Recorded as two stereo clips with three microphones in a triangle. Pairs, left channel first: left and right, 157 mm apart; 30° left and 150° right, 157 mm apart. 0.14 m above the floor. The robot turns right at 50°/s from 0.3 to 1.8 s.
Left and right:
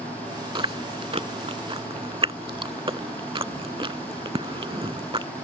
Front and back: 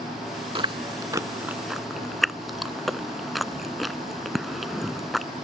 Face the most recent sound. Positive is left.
turn(degrees=-60)